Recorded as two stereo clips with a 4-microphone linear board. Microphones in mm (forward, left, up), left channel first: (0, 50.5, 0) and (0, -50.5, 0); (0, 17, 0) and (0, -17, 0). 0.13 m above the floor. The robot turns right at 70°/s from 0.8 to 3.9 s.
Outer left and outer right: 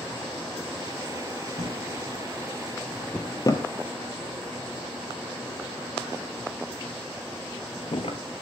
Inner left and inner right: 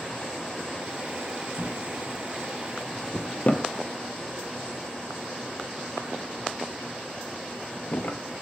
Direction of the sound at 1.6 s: 70° right (ahead or behind).